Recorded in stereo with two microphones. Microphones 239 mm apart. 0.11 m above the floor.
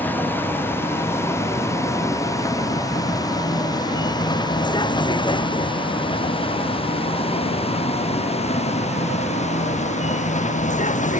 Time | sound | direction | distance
0.0 | a vehicle | 10° left (ahead or behind) | ?